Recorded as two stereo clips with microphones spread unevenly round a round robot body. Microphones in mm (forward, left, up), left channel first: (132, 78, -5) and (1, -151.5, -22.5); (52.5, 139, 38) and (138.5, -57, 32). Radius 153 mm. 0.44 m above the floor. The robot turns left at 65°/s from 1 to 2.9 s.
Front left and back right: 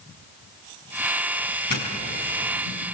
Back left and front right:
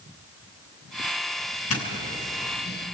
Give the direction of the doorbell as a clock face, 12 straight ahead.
8 o'clock.